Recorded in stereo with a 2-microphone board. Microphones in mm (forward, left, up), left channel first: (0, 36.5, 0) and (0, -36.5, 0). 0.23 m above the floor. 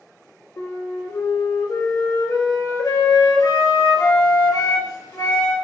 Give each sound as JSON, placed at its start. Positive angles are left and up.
{"t": 0.6, "sound": "a flute", "side_deg": 55, "distance_m": 1.5}